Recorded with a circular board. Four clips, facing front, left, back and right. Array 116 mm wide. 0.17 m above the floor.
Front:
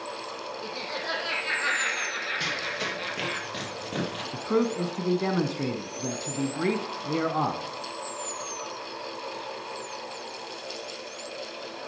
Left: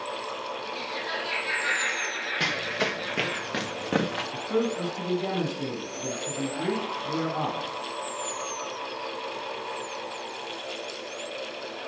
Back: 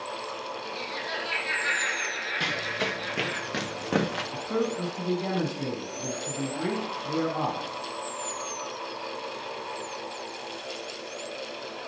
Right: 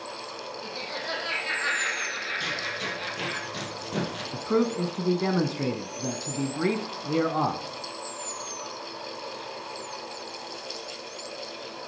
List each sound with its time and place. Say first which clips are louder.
0.6 s laughter: left 1 dB, front 1 dB; 20° right, 5.5 m; by 3.4 s 30° right, 4 m
2.4 s running footsteps: left 4 dB, back 2 dB; 105° left, 2 m; by 4.2 s 135° left, 3 m
4.3 s a man speaking: right 3 dB, front 5 dB; 45° right, 1.2 m